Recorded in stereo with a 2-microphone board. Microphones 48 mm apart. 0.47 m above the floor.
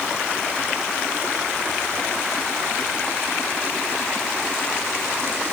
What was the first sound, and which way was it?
Only background noise.